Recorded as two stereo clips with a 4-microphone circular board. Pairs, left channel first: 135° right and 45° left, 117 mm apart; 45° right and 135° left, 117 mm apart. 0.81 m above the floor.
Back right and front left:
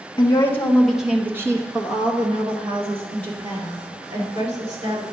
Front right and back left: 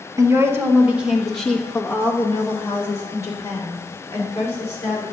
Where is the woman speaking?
175° right, 1.1 m; by 5.0 s 20° left, 3 m.